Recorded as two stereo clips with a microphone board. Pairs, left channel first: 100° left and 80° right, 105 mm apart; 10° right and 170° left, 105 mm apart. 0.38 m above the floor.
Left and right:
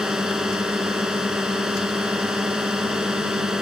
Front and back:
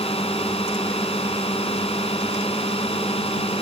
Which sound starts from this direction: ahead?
A drone, at 0.0 s.